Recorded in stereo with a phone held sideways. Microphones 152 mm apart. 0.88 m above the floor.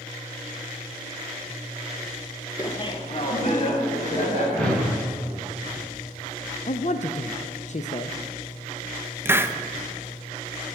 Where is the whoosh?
5° left (ahead or behind), 2.5 m.